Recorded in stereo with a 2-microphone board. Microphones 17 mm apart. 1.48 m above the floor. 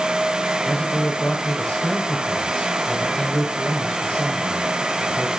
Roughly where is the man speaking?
Left.